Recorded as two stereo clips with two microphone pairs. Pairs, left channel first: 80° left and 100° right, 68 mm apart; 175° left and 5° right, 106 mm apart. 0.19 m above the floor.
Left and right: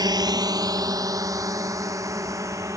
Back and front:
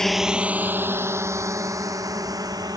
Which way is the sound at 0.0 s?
100° right.